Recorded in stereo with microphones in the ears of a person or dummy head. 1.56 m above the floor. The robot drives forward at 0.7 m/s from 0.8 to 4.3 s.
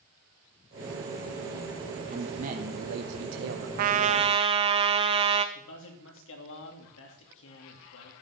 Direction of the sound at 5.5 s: 80° left.